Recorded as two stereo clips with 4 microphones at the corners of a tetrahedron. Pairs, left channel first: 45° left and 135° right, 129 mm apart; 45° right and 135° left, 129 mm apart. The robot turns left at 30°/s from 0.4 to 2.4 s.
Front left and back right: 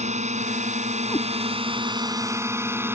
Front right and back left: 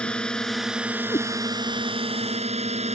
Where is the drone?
125° right; by 2.9 s 155° left.